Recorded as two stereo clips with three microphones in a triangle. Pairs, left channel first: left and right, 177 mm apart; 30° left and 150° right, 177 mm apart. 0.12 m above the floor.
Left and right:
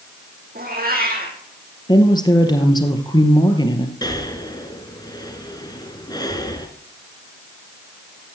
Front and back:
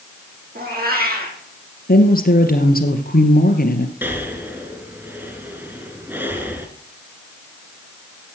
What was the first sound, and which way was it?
A cat meowing, 120° right.